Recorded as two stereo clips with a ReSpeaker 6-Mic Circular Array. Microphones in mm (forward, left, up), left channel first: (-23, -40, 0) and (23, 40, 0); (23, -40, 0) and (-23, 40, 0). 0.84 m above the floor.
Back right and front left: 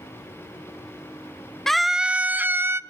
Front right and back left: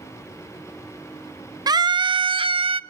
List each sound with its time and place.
1.7 s a scream: 155° left, 0.6 m; by 2.8 s 120° left, 1.1 m